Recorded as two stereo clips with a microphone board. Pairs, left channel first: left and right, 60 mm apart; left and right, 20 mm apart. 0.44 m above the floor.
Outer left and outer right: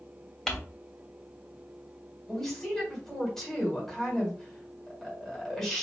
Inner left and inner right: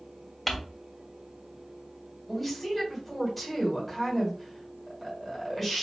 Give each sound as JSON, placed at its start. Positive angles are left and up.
{"t": 0.5, "sound": "crumpling", "side_deg": 10, "distance_m": 1.3}
{"t": 2.3, "sound": "a woman speaking", "side_deg": 5, "distance_m": 1.8}